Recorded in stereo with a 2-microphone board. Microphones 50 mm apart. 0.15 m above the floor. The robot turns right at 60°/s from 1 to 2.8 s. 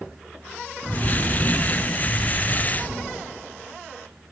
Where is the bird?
65° left, 1.0 m; by 3.1 s 170° left, 1.0 m.